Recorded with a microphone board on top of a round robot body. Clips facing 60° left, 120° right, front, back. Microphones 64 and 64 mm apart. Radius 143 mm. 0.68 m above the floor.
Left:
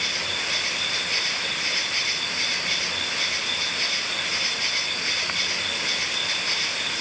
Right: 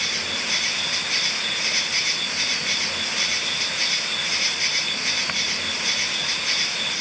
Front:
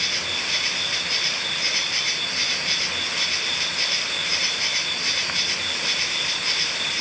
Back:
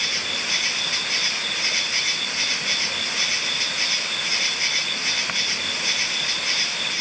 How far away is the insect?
About 5 m.